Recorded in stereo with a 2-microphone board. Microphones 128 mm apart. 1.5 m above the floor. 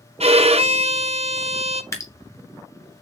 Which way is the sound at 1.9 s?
20° left (ahead or behind).